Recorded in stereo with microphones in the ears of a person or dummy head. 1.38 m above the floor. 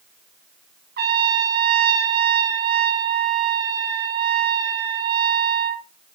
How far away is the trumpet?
About 1.1 m.